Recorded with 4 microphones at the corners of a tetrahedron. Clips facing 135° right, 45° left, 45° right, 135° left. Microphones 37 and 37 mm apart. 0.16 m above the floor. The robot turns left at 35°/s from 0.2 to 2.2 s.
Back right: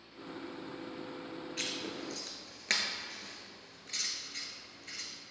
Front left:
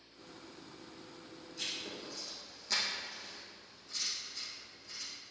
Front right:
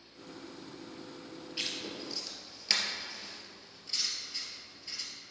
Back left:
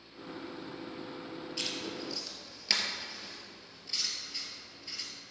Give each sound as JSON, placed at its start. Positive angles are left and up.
{"t": 1.6, "sound": "writing", "azimuth_deg": -120, "distance_m": 1.8}